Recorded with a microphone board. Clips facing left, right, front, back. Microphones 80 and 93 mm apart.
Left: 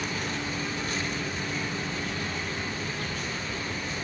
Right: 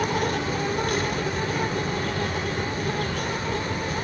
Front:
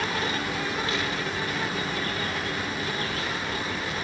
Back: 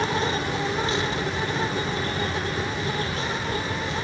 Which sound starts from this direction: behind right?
An insect, at 0.0 s.